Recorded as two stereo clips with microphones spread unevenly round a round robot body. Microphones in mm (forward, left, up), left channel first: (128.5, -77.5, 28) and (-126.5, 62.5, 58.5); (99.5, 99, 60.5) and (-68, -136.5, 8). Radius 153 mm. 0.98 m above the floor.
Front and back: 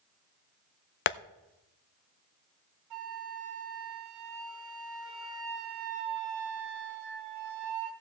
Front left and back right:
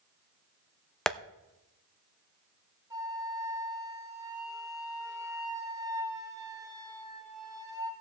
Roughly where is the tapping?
Ahead right.